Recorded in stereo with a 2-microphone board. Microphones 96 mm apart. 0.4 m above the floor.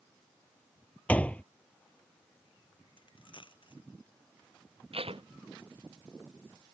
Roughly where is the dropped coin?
Left.